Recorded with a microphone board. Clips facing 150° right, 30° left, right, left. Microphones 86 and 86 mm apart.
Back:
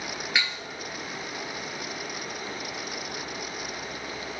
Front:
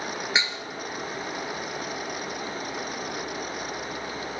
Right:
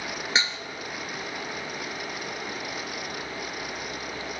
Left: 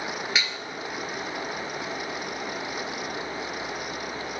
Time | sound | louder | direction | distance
0.3 | dishes clattering | even, right 5 dB | 35° right | 1.5 m